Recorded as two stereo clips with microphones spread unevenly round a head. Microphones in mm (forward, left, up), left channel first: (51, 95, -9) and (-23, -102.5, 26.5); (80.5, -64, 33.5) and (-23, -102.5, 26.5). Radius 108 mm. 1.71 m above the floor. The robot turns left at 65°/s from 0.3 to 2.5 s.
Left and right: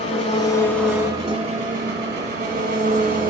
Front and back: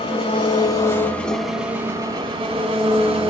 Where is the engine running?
10° left, 1.3 m; by 3.3 s 135° right, 1.3 m.